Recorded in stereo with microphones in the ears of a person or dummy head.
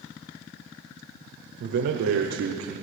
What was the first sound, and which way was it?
A man speaking, 55° right (ahead or behind).